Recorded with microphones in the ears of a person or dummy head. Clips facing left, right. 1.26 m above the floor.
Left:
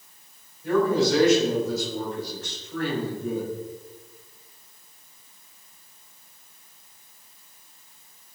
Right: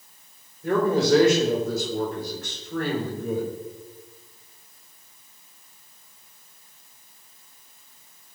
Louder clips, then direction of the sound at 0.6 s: Even; 45° right (ahead or behind).